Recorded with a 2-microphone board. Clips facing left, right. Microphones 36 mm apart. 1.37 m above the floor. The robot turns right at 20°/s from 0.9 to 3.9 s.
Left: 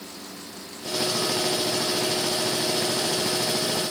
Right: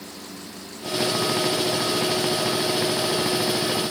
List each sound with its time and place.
Only background noise.